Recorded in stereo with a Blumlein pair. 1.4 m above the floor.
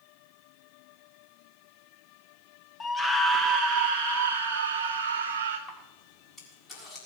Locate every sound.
2.8 s a scream: 15° left, 0.9 m; by 5.6 s 55° right, 2 m
5.7 s a camera shutter: 15° left, 6.5 m